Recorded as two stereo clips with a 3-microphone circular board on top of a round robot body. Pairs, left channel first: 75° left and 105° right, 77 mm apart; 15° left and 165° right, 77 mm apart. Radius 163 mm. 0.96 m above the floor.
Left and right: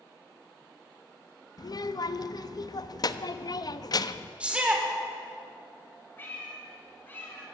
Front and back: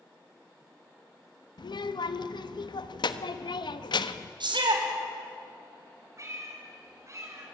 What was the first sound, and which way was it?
A child speaking, 40° left.